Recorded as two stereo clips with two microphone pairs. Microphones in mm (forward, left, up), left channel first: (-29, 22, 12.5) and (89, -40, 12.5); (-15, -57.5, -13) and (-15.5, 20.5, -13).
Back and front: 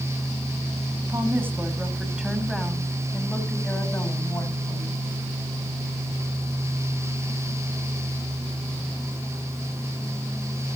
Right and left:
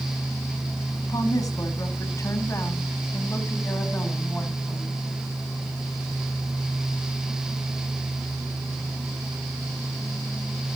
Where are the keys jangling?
No keys jangling in this recording.